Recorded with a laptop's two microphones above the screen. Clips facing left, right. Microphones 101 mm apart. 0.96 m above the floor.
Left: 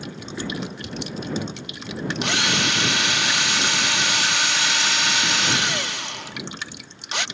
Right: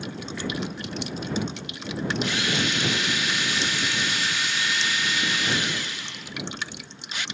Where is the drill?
75° left (ahead or behind).